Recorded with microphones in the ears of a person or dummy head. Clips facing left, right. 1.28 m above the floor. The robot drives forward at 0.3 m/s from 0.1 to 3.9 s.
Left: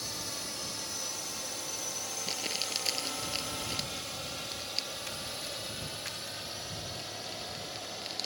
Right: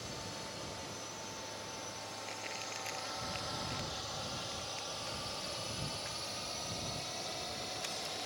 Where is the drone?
70° left (ahead or behind); by 8.3 s 5° left (ahead or behind).